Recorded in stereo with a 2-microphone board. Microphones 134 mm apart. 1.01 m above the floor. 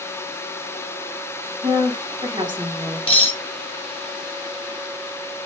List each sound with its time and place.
1.6 s a woman speaking: 35° right (ahead or behind), 1.3 m
3.1 s cutlery clinking: 40° left (ahead or behind), 1.2 m